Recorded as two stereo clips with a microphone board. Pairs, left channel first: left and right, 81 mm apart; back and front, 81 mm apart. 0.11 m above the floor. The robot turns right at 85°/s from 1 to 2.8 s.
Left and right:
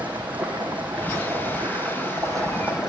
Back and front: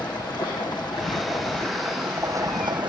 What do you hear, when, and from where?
0.0 s running water: 160° right, 4.5 m; by 2.9 s 10° right, 4.5 m